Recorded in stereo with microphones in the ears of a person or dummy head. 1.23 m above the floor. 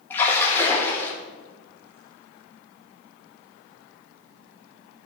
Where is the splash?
15° left (ahead or behind), 1.8 m.